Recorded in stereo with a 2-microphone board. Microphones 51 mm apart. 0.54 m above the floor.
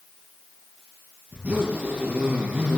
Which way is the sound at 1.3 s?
30° right (ahead or behind).